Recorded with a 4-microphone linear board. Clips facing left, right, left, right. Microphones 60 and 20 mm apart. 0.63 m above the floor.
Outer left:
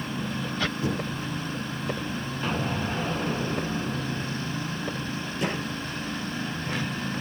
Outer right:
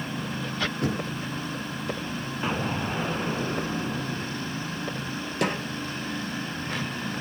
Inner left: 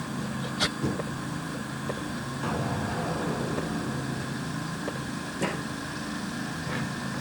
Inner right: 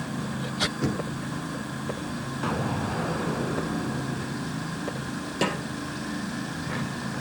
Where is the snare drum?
70° right (ahead or behind), 3 m.